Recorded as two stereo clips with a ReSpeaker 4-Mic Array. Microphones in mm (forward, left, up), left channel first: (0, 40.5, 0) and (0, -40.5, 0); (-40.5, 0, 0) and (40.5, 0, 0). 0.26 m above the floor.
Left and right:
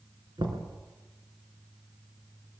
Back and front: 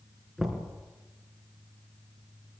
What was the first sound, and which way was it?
Knocking, 90° right.